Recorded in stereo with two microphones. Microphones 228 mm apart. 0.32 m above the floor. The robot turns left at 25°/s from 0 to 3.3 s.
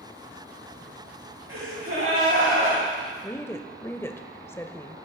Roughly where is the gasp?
Right.